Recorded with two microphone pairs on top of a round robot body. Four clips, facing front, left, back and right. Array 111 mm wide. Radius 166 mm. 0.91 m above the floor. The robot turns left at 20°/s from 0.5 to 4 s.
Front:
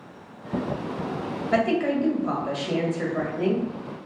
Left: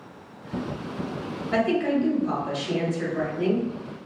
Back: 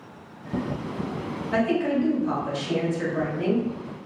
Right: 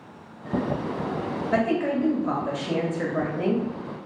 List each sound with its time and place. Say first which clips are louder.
1.5 s a woman speaking: left 1 dB, front 1 dB; 30° right, 1.6 m; by 3.6 s 75° right, 1.6 m